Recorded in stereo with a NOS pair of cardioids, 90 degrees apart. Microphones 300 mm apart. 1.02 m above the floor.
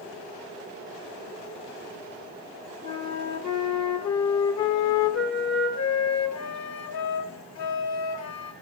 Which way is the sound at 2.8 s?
65° left.